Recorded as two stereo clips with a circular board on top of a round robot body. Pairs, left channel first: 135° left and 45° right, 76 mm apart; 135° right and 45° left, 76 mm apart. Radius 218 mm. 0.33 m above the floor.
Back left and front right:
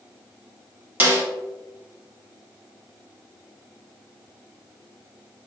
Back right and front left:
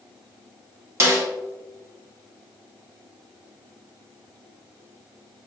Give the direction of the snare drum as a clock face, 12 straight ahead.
12 o'clock.